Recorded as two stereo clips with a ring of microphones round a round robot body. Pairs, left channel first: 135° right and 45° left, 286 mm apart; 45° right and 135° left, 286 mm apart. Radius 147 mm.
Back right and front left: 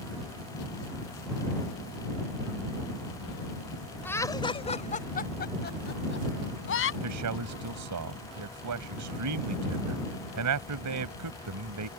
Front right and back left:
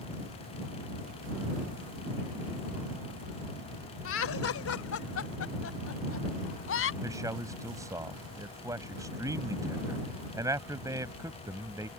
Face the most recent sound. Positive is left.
turn(degrees=55)